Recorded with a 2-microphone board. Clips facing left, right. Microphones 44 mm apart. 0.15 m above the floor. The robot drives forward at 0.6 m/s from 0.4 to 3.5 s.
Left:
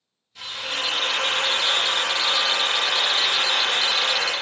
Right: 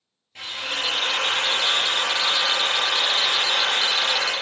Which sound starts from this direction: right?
A drill, at 0.3 s.